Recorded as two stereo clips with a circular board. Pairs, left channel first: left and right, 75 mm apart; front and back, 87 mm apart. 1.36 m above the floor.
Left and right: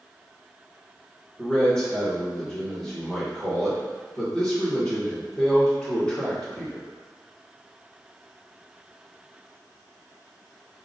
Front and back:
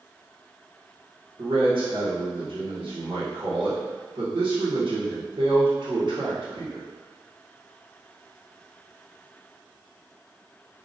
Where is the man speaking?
170° left, 1.7 m.